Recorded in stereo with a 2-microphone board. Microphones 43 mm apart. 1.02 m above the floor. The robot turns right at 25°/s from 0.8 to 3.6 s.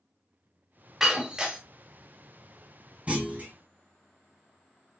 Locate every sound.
1.0 s breaking glass: 10° right (ahead or behind), 1.3 m; by 1.6 s 25° right (ahead or behind), 1.3 m
3.1 s a clunk: 30° right (ahead or behind), 1.4 m; by 3.5 s 40° right (ahead or behind), 1.4 m